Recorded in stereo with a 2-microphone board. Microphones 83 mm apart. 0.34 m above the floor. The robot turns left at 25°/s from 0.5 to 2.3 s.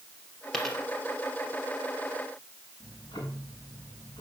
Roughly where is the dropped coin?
Centre.